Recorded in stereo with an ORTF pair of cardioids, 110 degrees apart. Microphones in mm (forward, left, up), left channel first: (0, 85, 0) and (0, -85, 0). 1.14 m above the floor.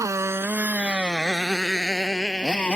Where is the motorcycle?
15° right; by 2.8 s 5° left.